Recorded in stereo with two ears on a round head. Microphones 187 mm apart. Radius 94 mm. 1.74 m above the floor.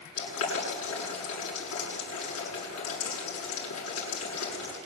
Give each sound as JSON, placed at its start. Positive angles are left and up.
{"t": 0.2, "sound": "boiling", "side_deg": 85, "distance_m": 9.0}